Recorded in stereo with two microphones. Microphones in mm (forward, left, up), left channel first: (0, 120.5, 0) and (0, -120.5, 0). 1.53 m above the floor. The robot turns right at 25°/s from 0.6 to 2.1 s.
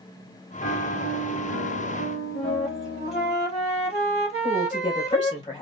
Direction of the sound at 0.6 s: 60° left.